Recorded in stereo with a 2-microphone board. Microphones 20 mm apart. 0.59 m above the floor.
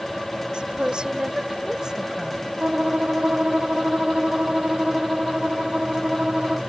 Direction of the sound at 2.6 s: 65° right (ahead or behind).